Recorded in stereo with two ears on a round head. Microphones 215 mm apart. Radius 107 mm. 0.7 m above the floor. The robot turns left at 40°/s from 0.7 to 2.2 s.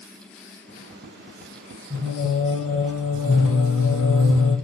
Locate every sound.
1.9 s singing: 15° left (ahead or behind), 3.5 m; by 4.5 s 25° left (ahead or behind), 3.5 m